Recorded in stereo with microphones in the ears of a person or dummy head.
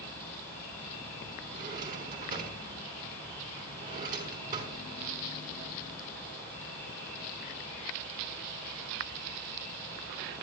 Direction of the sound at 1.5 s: 50° right (ahead or behind).